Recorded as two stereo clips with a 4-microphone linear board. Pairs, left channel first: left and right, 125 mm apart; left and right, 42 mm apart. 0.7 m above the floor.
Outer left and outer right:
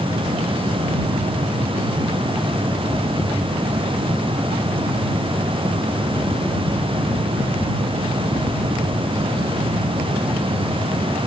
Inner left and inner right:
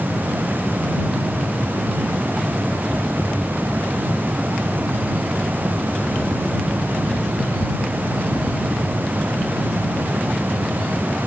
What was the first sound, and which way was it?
Only background noise.